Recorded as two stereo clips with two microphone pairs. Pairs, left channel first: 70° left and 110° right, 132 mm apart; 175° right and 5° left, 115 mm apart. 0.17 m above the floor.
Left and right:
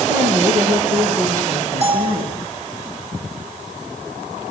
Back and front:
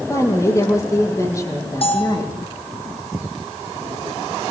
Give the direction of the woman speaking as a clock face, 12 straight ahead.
4 o'clock.